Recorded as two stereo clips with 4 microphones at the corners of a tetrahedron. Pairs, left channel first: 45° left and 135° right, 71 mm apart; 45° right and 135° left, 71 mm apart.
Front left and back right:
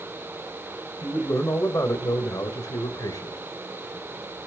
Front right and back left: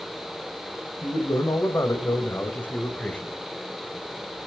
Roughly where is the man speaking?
Ahead.